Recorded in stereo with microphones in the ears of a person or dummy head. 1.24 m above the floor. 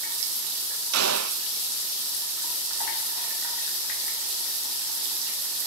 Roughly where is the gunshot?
Right.